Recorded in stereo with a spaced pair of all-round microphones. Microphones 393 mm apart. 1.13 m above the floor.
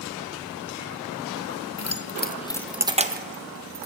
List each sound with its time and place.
1.8 s keys jangling: 45° left (ahead or behind), 0.6 m; by 3.9 s 45° right (ahead or behind), 0.8 m